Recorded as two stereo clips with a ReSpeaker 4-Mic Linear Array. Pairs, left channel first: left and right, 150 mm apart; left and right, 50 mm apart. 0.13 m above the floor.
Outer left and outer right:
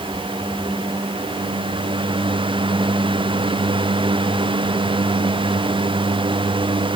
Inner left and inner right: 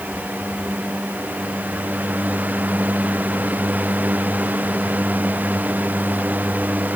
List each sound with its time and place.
Only background noise.